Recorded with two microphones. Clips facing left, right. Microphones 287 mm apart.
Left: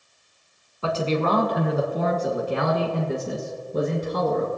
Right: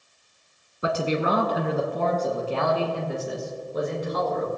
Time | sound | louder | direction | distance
0.8 | a man speaking | left 1 dB | 20° right (ahead or behind) | 1.2 m